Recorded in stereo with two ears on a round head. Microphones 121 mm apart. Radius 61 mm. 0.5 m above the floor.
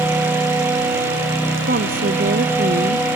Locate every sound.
1.7 s a woman speaking: 80° right